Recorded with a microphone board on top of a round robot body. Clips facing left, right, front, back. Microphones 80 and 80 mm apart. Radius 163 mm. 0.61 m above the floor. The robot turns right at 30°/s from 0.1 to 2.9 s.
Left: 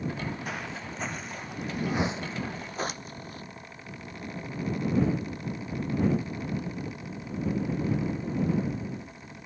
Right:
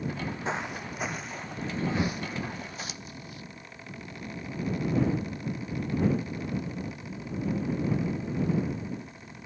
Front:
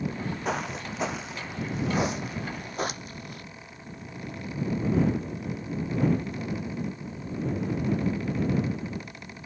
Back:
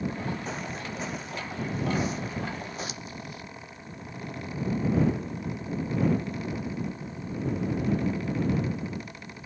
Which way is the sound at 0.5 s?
25° right.